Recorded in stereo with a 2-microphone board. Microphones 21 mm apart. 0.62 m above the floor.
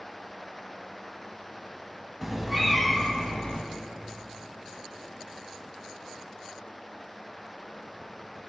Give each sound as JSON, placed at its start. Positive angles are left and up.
{"t": 2.2, "sound": "a cat meowing", "side_deg": -15, "distance_m": 1.3}